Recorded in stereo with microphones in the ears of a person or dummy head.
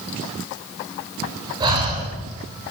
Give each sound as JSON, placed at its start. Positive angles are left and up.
{"t": 1.6, "sound": "breathing", "side_deg": -25, "distance_m": 5.5}